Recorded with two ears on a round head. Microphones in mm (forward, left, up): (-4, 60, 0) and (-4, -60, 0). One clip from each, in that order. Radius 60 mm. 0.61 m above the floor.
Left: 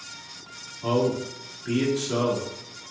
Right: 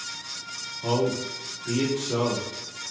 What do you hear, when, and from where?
0.8 s a man speaking: 30° left (ahead or behind), 1.6 m